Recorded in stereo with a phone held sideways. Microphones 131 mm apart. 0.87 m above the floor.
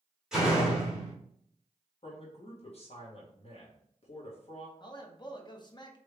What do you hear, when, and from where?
0.3 s a door slam: 5° right (ahead or behind), 1.5 m
2.0 s a man speaking: 50° left (ahead or behind), 1.3 m
4.8 s a man speaking: 35° left (ahead or behind), 0.6 m